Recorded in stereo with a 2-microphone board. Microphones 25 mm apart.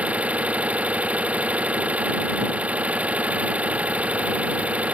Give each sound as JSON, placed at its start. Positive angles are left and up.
{"t": 0.0, "sound": "an engine running", "side_deg": -75}